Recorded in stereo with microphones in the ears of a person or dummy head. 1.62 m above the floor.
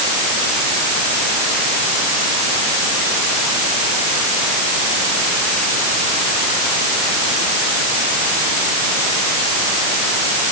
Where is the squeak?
No squeak in this recording.